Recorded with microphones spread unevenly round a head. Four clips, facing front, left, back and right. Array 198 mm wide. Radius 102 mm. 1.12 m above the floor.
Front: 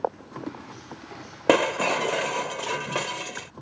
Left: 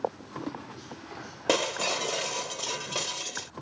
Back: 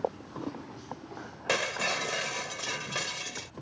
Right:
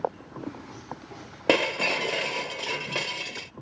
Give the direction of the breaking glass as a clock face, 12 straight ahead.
1 o'clock.